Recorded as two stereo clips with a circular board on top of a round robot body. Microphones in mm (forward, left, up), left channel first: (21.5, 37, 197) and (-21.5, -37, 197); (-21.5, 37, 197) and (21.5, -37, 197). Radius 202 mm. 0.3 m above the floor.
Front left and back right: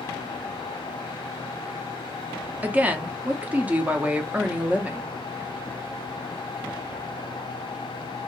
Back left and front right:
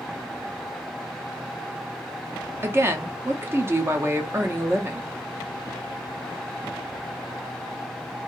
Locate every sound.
2.6 s a woman speaking: 70° right, 0.9 m